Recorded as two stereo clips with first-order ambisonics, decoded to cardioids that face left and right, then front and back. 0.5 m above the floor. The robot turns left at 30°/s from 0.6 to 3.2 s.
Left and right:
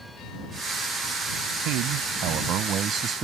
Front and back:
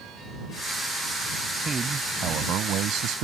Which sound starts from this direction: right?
A man speaking, at 1.6 s.